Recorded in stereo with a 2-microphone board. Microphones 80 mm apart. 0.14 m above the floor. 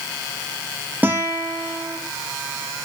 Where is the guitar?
20° right (ahead or behind), 5.5 m.